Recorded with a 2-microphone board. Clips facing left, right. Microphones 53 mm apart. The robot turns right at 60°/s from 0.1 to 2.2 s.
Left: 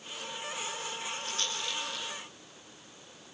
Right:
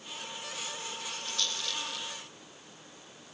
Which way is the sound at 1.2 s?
45° left (ahead or behind).